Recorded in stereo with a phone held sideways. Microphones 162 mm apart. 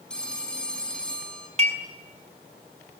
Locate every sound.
0.1 s a phone ringing: 5° left (ahead or behind), 6.5 m
1.6 s dishes clattering: 45° right (ahead or behind), 6 m